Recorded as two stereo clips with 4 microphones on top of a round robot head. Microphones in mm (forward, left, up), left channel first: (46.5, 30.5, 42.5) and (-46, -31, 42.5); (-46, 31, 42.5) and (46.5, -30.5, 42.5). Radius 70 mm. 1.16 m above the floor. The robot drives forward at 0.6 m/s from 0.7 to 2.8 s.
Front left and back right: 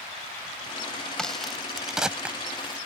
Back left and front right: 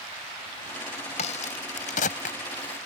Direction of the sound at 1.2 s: 120° left.